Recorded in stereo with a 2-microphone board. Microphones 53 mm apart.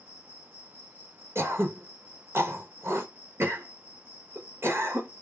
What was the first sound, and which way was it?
An insect, 35° right (ahead or behind).